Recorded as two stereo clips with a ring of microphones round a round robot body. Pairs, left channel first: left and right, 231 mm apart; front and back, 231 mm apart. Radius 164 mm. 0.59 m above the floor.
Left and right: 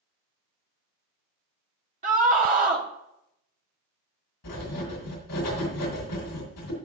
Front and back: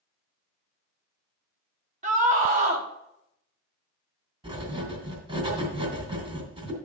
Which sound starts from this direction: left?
Writing, at 4.4 s.